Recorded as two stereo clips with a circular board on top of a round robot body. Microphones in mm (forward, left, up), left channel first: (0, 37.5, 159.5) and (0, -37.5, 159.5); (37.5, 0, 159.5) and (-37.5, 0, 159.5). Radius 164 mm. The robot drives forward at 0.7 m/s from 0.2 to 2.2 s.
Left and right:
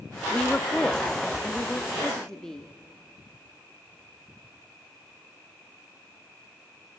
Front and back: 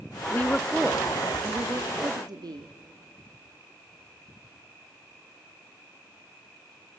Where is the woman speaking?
25° left, 0.7 m; by 2.7 s 175° left, 1.2 m.